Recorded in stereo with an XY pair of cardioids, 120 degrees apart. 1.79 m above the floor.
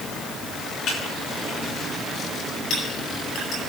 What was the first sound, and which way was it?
Typing on a keyboard, 60° left.